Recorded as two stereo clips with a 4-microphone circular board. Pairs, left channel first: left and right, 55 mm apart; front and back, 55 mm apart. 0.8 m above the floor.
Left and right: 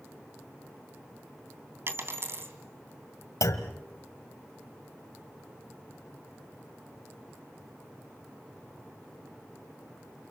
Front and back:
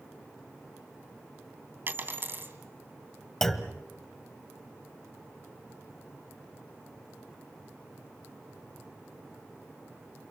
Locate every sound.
1.9 s a dropped coin: 130° right, 3 m
3.4 s a clunk: 85° left, 1.5 m